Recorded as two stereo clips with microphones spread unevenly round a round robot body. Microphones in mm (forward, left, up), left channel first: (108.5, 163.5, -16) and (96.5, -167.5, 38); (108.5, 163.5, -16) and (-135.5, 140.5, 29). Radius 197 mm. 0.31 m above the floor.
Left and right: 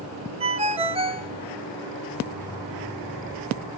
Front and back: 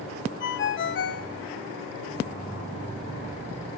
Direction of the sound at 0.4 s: 15° right.